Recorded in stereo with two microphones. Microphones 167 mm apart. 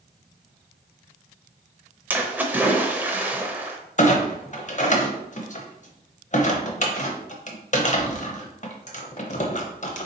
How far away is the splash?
About 0.6 m.